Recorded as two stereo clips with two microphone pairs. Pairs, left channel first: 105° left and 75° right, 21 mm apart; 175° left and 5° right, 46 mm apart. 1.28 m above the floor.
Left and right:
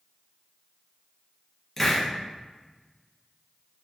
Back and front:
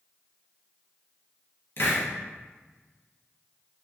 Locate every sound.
1.8 s a hiss: straight behind, 0.7 m